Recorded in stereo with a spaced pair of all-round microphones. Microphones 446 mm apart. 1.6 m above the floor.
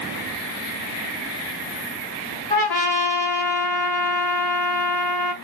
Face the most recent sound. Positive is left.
turn(degrees=10)  # may be behind; listen again after turning